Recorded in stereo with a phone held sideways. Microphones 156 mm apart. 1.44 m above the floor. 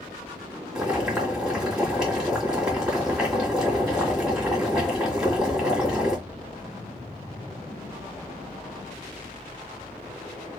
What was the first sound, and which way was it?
Boiling, 5° right (ahead or behind).